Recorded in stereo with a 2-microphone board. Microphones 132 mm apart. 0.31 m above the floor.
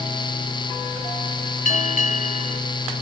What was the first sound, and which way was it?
A bell, 65° left (ahead or behind).